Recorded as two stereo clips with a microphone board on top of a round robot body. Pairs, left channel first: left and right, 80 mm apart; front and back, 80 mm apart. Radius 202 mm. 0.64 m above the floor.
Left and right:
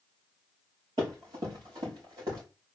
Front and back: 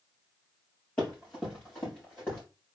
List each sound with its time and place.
1.0 s running footsteps: 80° right, 3 m; by 2.4 s 75° right, 4 m